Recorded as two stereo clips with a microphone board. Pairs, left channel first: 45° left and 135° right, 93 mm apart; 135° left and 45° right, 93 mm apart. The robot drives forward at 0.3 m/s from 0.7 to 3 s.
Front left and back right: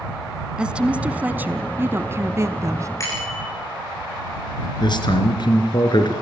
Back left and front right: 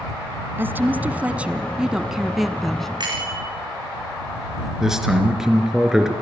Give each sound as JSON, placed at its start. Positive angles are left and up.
{"t": 0.6, "sound": "a woman speaking", "azimuth_deg": -70, "distance_m": 1.1}
{"t": 3.0, "sound": "a bicycle bell", "azimuth_deg": -10, "distance_m": 9.0}
{"t": 4.8, "sound": "a man speaking", "azimuth_deg": 40, "distance_m": 2.5}